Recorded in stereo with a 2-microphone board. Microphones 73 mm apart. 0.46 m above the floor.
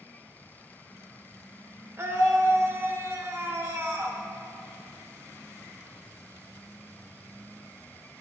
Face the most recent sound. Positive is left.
turn(degrees=-40)  # may be behind; listen again after turning